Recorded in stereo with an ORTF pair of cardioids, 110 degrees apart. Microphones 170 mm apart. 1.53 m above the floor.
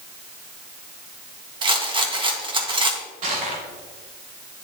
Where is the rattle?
30° right, 1.6 m.